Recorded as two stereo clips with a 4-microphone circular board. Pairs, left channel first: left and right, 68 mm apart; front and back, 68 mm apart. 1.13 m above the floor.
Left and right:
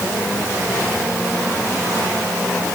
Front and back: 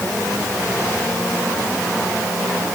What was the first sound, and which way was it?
Only background noise.